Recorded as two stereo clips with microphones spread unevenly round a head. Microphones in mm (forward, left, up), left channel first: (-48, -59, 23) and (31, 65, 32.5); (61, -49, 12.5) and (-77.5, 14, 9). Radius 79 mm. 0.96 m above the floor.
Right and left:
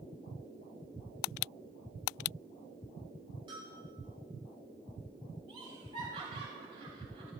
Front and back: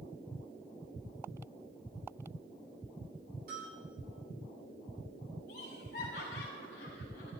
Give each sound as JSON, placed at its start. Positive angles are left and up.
{"t": 3.5, "sound": "a bell", "azimuth_deg": 115, "distance_m": 8.0}
{"t": 5.5, "sound": "laughter", "azimuth_deg": 10, "distance_m": 3.0}